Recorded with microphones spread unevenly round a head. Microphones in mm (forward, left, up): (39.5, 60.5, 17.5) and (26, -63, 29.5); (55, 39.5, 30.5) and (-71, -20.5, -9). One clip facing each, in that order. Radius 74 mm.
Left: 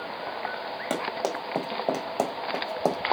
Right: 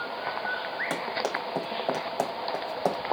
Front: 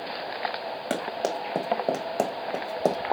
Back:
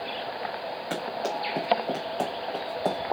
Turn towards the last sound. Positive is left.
turn(degrees=10)